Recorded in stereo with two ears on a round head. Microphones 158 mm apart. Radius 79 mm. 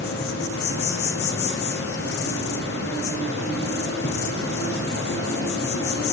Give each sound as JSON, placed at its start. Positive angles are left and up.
{"t": 0.0, "sound": "an insect", "side_deg": 60, "distance_m": 3.5}